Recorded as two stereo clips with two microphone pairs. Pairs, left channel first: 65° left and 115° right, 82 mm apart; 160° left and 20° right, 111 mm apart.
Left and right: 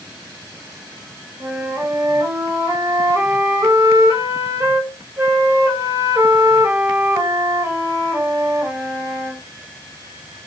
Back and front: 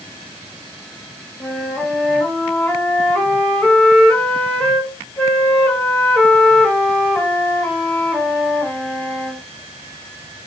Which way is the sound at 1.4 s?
125° right.